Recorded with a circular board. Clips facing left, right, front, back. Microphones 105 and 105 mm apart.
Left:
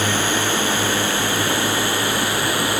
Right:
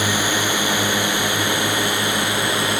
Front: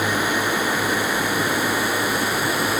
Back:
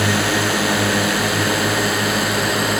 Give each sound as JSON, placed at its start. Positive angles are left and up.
{"t": 0.0, "sound": "a drone", "azimuth_deg": -165}